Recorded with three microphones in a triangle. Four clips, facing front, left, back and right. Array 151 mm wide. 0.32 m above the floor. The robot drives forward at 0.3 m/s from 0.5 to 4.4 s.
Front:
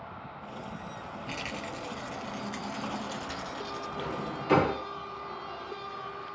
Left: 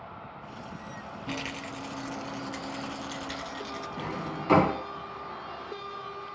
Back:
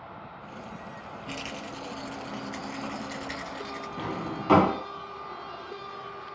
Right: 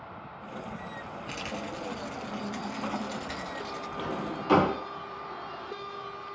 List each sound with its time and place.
1.3 s a rattle: 95° left, 0.7 m; by 3.9 s 140° left, 1.1 m
4.0 s a drawer: 160° left, 0.7 m